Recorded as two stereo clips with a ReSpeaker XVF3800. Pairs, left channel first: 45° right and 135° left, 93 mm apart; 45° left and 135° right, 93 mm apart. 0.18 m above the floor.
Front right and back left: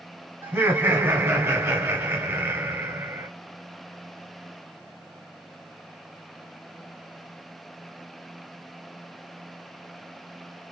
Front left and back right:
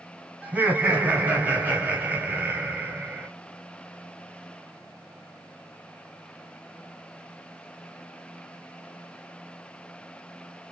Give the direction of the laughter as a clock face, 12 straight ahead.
6 o'clock.